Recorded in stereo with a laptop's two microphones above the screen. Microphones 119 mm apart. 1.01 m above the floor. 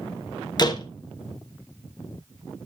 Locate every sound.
0.6 s a door slam: 35° left (ahead or behind), 0.9 m